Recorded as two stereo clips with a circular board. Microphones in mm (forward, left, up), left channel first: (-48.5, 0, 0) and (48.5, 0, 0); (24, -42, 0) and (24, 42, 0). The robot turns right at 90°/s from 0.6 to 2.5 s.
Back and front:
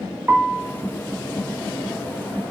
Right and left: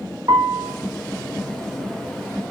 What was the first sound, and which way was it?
A piano, 70° left.